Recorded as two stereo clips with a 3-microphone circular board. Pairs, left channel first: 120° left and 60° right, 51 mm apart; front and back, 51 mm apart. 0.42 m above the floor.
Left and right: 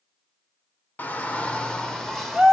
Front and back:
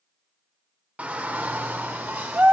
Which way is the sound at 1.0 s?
145° left.